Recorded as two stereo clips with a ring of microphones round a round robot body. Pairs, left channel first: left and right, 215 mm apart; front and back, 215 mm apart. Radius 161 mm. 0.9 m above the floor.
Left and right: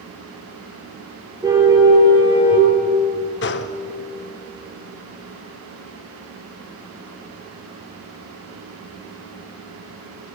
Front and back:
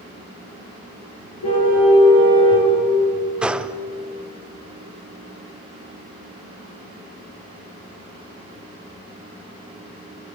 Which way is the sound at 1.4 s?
15° right.